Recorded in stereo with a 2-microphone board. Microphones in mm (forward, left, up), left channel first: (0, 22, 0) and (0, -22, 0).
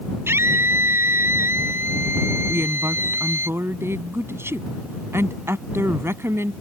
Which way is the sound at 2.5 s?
80° right.